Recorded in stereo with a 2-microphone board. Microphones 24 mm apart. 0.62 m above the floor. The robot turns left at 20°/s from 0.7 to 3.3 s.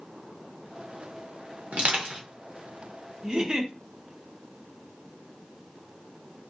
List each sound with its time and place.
1.7 s crushing: 65° right (ahead or behind), 1.0 m; by 2.2 s 75° right (ahead or behind), 1.0 m
3.2 s a giggle: 35° right (ahead or behind), 0.5 m